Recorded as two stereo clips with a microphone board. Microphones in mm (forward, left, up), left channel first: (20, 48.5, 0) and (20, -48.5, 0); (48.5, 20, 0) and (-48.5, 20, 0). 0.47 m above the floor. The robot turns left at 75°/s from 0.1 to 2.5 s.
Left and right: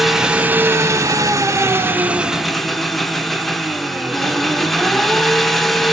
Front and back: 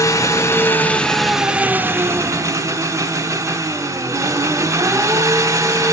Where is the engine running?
5° right, 0.8 m; by 5.9 s 175° left, 0.8 m.